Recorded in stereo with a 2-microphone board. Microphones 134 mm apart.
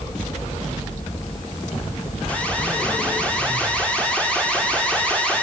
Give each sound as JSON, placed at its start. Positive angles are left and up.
{"t": 2.3, "sound": "an alarm", "side_deg": 10, "distance_m": 6.5}